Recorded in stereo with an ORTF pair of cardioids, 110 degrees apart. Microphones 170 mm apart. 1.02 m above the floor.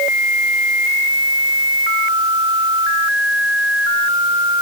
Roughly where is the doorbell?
No doorbell in this recording.